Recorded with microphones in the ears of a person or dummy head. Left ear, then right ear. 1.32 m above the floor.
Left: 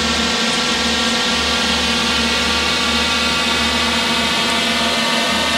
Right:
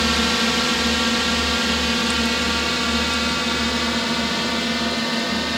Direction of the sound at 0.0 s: 10° left (ahead or behind).